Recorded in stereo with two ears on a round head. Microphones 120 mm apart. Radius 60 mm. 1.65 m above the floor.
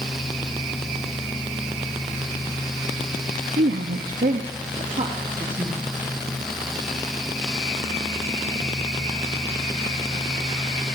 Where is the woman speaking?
60° right (ahead or behind), 0.7 m; by 5.8 s 30° right (ahead or behind), 1.8 m.